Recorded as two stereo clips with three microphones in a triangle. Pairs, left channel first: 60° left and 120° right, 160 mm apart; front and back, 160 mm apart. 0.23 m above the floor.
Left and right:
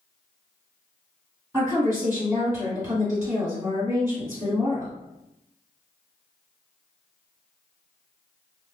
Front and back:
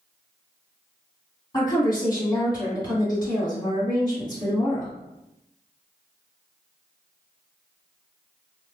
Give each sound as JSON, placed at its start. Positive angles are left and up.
{"t": 1.5, "sound": "a woman speaking", "azimuth_deg": -45, "distance_m": 1.8}